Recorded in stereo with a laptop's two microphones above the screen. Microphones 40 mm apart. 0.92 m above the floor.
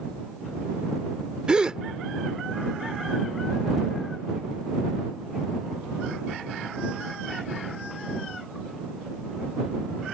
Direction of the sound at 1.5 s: 20° right (ahead or behind).